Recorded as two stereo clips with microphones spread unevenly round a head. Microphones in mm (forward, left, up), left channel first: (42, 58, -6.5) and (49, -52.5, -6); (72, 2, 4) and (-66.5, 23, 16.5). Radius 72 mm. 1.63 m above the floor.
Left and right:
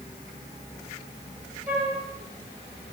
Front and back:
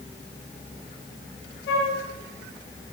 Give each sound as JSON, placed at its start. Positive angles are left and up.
{"t": 1.7, "sound": "a flute", "azimuth_deg": -15, "distance_m": 6.5}